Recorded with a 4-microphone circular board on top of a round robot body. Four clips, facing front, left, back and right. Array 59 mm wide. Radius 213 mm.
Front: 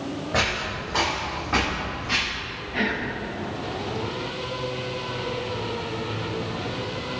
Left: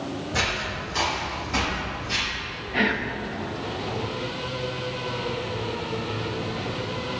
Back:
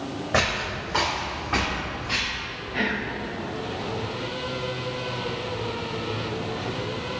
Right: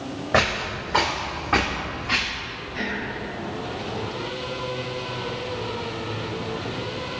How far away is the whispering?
About 0.8 m.